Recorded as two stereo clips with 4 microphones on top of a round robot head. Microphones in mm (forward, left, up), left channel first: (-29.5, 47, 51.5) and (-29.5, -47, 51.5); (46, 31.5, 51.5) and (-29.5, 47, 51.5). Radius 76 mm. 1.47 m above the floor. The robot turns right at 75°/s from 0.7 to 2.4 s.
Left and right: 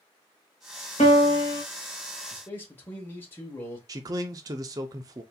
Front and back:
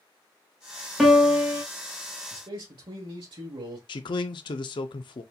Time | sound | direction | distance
1.0 | a piano | 80° left | 0.9 m
2.3 | a man speaking | 150° left | 1.1 m
3.9 | a man speaking | 35° right | 0.5 m